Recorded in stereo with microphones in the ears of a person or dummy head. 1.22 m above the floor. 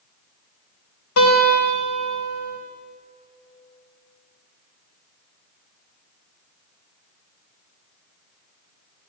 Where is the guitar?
80° left, 4 m.